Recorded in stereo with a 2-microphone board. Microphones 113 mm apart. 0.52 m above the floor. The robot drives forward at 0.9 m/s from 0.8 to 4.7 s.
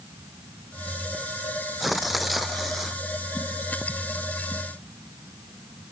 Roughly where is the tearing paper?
Centre.